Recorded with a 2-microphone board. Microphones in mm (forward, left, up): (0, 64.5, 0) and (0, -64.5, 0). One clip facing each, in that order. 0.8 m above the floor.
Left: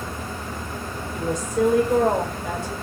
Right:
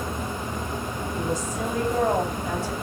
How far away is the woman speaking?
About 3 m.